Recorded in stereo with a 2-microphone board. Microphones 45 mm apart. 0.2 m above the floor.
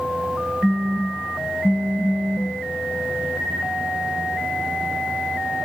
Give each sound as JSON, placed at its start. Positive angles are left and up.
{"t": 0.6, "sound": "a phone buzzing", "side_deg": -10, "distance_m": 0.7}